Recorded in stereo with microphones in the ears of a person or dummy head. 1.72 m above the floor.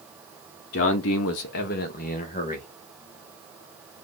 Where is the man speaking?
55° left (ahead or behind), 0.9 m; by 2.7 s 35° left (ahead or behind), 2.5 m.